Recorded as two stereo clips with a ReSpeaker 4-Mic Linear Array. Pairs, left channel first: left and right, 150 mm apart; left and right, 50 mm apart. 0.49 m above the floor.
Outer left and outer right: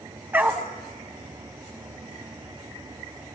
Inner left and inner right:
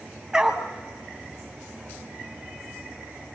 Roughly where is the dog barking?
Centre.